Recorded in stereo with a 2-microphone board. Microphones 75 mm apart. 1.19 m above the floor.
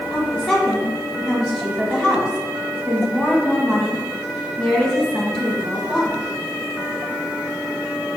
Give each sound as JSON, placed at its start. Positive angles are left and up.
{"t": 0.1, "sound": "a woman speaking", "side_deg": -5, "distance_m": 1.1}